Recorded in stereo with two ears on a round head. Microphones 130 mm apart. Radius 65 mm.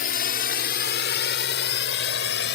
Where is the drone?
60° left (ahead or behind); by 2.5 s 80° left.